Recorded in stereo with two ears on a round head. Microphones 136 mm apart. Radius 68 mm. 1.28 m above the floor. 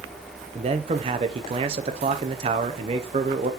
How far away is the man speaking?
About 0.7 m.